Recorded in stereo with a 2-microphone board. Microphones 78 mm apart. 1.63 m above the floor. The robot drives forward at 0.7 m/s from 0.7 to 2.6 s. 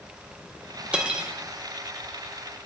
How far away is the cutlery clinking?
About 0.7 m.